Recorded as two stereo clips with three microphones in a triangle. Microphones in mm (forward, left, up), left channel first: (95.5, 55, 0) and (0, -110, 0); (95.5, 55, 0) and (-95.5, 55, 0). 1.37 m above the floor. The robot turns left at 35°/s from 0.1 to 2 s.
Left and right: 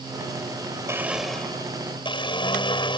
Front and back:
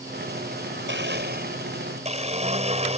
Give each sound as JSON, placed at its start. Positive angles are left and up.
{"t": 0.9, "sound": "a blender", "azimuth_deg": 165}